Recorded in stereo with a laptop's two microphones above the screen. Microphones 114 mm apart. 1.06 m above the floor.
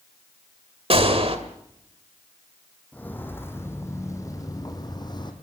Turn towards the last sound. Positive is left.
turn(degrees=40)  # may be behind; listen again after turning